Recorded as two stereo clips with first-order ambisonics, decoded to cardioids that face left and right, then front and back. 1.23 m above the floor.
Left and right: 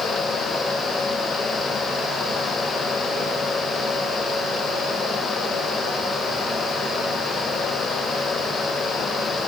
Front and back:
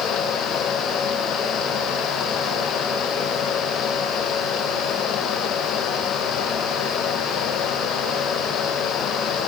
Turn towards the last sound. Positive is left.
No sound to turn to.